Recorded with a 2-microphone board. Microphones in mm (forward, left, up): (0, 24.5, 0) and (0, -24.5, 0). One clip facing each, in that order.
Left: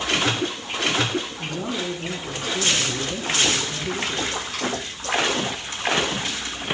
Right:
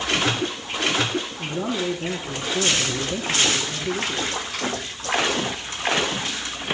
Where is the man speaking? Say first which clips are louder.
Right 2 dB; 20° right (ahead or behind), 5 m.